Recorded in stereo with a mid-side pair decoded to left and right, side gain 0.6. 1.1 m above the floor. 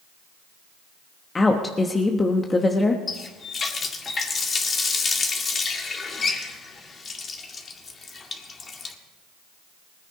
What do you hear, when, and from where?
1.4 s a woman speaking: 20° left, 1.2 m
3.1 s a running tap: 35° left, 1.8 m